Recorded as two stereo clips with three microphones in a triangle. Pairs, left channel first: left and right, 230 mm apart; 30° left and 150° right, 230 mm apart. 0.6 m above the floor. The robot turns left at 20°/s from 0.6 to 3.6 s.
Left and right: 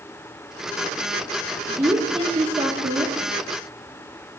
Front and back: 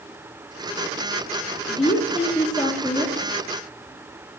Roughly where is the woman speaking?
Ahead.